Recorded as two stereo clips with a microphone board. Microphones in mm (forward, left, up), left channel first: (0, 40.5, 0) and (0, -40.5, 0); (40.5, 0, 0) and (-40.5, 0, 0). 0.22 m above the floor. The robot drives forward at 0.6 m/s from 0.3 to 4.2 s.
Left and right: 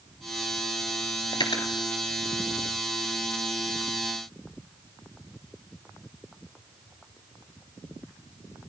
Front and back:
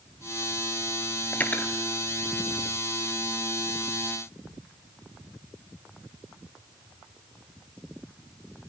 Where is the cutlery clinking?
65° left, 2 m; by 1.7 s 75° left, 2.0 m.